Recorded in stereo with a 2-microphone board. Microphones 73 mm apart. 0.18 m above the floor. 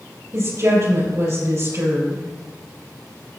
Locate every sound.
0.3 s a woman speaking: 45° right (ahead or behind), 4.5 m